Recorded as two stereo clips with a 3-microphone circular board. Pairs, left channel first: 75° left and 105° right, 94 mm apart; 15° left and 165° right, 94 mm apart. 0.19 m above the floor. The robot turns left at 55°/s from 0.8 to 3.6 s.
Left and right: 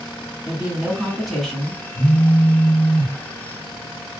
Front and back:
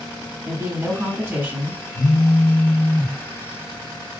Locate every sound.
0.5 s a woman speaking: 170° right, 1.2 m; by 1.8 s 130° left, 1.2 m
1.9 s a phone buzzing: 30° left, 0.6 m; by 3.2 s 35° right, 0.6 m